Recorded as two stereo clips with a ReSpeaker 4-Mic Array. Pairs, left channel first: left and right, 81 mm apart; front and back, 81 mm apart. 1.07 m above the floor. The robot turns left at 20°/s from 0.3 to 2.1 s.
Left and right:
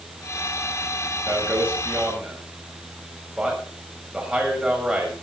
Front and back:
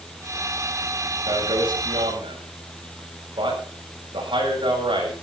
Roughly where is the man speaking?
Behind right.